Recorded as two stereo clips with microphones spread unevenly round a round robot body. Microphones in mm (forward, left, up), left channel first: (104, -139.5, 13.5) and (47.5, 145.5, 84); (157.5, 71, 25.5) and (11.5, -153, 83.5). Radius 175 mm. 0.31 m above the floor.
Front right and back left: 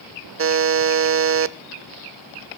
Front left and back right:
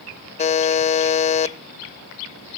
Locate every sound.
0.4 s a buzzer: 65° left, 0.6 m